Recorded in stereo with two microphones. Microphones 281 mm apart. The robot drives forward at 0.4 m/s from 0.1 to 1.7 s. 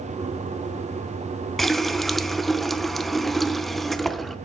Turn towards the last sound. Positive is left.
turn(degrees=0)  # may be behind; listen again after turning